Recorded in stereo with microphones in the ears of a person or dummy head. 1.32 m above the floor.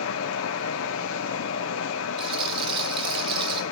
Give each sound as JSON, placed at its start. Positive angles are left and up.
{"t": 0.0, "sound": "a fan", "side_deg": 65, "distance_m": 1.5}
{"t": 2.2, "sound": "a rattle", "side_deg": -30, "distance_m": 1.4}